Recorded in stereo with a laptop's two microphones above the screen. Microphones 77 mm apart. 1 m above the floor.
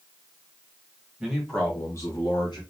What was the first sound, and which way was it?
A man speaking, 15° right (ahead or behind).